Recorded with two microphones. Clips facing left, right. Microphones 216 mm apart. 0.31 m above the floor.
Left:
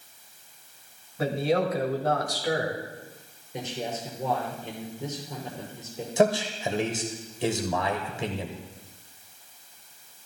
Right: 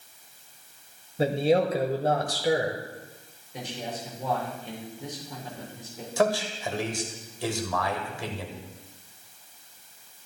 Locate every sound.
1.2 s a man speaking: 30° right (ahead or behind), 1.2 m
3.5 s a man speaking: 20° left (ahead or behind), 5.5 m
6.2 s a man speaking: 20° left (ahead or behind), 1.5 m